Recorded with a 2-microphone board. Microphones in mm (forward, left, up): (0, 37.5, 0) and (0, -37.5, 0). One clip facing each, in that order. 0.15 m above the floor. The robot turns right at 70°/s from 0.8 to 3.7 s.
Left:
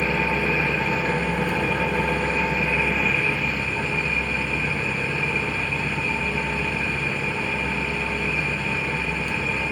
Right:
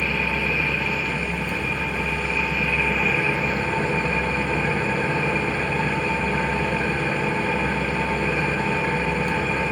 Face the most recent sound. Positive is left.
turn(degrees=-135)